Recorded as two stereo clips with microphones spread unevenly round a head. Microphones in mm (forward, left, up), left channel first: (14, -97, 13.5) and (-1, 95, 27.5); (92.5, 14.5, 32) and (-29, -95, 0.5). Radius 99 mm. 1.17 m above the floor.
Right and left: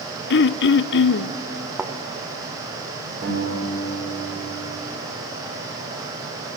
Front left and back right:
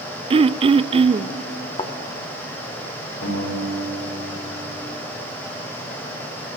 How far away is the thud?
About 1.0 m.